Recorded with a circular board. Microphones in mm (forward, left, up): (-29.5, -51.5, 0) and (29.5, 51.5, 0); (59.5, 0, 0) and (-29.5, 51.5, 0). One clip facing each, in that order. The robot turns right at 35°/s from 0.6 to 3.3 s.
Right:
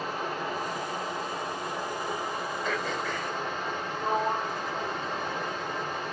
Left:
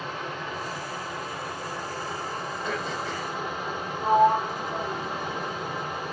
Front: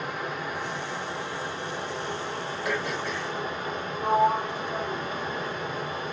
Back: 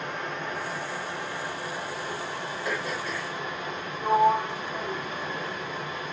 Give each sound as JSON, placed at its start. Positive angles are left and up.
{"t": 0.0, "sound": "running water", "azimuth_deg": -100, "distance_m": 0.9}
{"t": 2.6, "sound": "throat clearing", "azimuth_deg": -15, "distance_m": 1.4}
{"t": 4.0, "sound": "a sliding door", "azimuth_deg": 5, "distance_m": 1.5}